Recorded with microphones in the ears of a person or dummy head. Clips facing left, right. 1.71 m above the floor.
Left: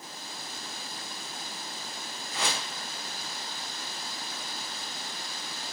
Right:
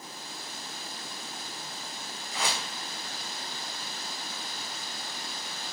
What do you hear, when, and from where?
2.3 s a whoosh: 50° left (ahead or behind), 0.6 m